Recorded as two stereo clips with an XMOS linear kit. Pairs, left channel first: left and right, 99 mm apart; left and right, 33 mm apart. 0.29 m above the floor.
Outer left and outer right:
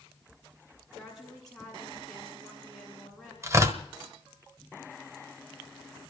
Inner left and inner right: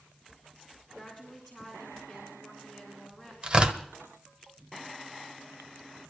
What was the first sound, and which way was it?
A woman speaking, centre (ahead or behind).